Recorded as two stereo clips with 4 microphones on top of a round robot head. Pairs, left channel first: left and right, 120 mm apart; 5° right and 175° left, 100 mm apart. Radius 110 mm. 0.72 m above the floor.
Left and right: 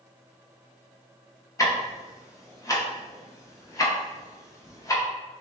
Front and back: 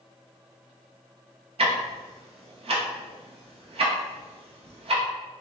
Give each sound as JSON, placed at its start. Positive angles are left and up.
{"t": 1.6, "sound": "ticking", "azimuth_deg": 155, "distance_m": 1.0}